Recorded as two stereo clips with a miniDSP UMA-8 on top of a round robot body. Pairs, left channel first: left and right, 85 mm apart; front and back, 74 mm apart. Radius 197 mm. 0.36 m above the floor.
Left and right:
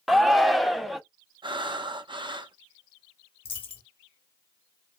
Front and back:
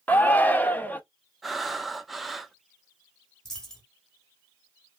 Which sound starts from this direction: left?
A dropped coin, at 3.5 s.